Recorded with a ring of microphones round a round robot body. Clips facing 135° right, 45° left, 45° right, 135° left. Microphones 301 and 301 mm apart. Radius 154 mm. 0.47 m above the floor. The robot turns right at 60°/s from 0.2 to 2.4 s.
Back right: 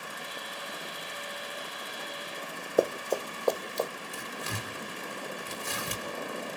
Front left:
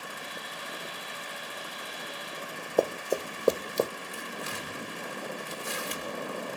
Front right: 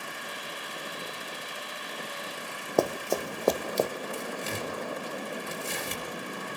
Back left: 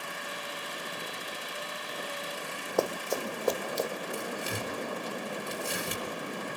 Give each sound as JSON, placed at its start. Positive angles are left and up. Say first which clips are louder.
{"t": 2.8, "sound": "running footsteps", "louder": "even, front right 3 dB", "azimuth_deg": -50, "distance_m": 0.8}
{"t": 4.1, "sound": "tearing paper", "louder": "even, even", "azimuth_deg": -145, "distance_m": 4.5}